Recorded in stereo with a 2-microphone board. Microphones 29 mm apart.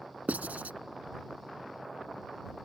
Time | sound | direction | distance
0.3 | writing | 65° right (ahead or behind) | ?